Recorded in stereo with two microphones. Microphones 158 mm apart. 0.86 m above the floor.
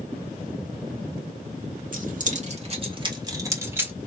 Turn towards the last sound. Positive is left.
turn(degrees=-10)  # may be behind; listen again after turning